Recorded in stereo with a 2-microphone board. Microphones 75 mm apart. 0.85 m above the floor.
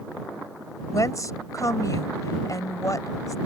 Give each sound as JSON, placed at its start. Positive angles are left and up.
{"t": 0.9, "sound": "a woman speaking", "side_deg": 45}